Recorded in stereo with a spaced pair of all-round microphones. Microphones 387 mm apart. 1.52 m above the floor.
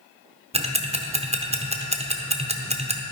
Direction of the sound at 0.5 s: 15° right (ahead or behind).